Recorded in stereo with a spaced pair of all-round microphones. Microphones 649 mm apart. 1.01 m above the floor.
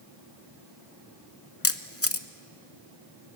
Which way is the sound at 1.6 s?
20° left (ahead or behind).